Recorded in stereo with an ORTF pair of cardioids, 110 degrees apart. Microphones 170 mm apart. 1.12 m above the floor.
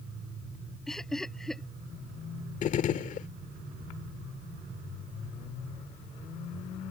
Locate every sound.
0.9 s laughter: straight ahead
2.6 s a gunshot: 50° left